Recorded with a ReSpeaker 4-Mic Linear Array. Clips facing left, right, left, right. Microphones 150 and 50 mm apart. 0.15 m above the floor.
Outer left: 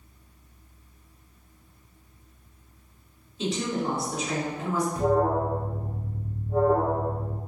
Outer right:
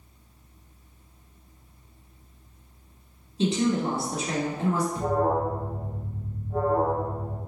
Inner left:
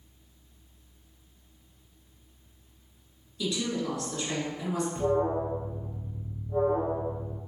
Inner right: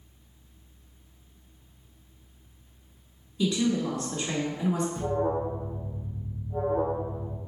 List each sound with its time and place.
3.4 s a woman speaking: 30° right (ahead or behind), 1.6 m
5.0 s an alarm: 45° left (ahead or behind), 1.6 m